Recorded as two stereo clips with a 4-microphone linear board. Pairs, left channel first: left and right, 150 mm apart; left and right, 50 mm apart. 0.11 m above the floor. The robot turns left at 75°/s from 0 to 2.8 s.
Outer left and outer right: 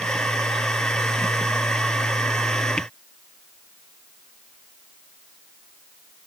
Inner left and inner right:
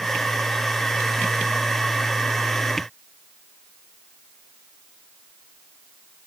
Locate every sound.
Only background noise.